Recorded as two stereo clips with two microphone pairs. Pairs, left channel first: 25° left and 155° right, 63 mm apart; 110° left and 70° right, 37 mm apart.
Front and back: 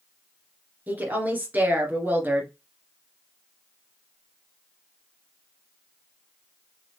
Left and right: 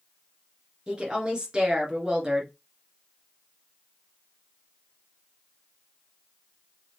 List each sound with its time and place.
0.9 s a woman speaking: 115° right, 1.7 m